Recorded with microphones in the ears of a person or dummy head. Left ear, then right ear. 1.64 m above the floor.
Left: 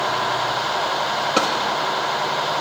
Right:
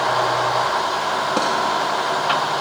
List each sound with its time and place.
1.4 s a drawer: 20° left (ahead or behind), 0.7 m